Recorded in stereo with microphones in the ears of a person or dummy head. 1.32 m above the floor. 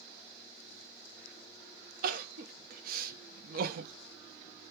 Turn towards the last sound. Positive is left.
turn(degrees=-60)  # may be behind; listen again after turning